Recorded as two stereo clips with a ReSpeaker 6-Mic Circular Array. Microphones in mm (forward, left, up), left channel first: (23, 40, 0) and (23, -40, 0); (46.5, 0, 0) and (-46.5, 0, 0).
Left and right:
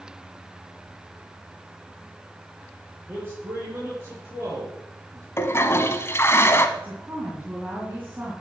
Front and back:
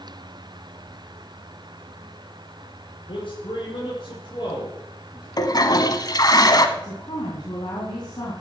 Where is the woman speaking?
25° right, 3 m.